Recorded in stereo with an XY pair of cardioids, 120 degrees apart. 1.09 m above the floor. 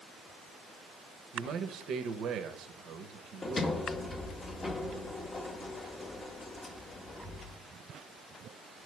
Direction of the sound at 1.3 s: 65° right.